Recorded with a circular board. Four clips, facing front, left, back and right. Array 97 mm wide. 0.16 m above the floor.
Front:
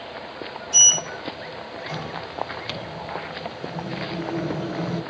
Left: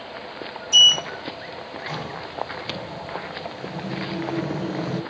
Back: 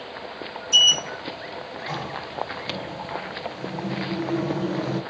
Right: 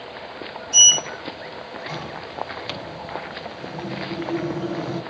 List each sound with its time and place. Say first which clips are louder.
0.7 s a sliding door: left 3 dB, back 4 dB; 140° left, 3 m